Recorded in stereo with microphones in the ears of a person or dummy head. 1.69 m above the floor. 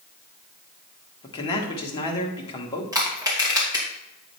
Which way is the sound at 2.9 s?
10° right (ahead or behind).